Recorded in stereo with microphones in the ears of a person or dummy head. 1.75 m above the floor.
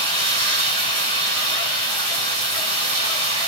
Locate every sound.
0.0 s running water: 35° right (ahead or behind), 1.5 m